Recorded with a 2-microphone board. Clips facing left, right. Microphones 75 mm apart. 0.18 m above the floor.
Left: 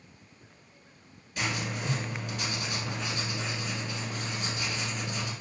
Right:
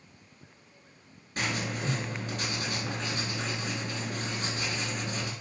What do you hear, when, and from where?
1.4 s writing: 45° right (ahead or behind), 0.9 m